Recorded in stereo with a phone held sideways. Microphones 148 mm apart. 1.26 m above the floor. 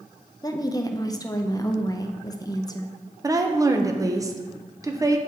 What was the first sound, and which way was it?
A woman speaking, 25° left (ahead or behind).